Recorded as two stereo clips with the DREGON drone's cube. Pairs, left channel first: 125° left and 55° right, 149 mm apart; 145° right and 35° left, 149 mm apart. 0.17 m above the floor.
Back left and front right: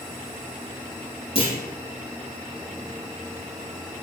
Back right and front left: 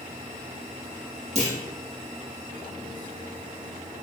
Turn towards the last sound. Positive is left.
turn(degrees=75)